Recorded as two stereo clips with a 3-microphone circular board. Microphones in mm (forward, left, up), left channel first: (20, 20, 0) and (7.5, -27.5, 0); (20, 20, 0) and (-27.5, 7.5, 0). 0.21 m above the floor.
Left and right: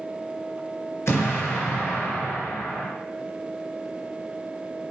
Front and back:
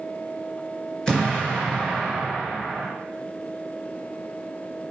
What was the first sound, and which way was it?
An explosion, 90° left.